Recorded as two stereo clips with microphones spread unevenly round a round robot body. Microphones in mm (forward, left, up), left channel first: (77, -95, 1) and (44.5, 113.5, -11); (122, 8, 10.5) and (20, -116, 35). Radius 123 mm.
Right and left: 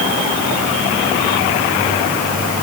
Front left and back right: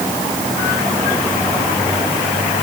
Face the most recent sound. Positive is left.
No sound to turn to.